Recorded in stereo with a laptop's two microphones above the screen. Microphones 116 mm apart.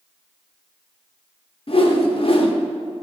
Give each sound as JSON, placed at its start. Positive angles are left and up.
{"t": 1.7, "sound": "a whoosh", "side_deg": 55, "distance_m": 0.7}